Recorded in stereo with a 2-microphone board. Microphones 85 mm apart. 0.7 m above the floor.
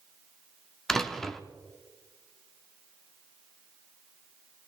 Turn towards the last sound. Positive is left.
turn(degrees=5)  # may be behind; listen again after turning